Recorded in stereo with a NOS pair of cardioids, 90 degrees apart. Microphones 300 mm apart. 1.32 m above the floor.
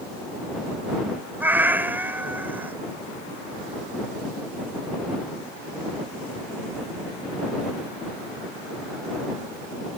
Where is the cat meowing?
5° right.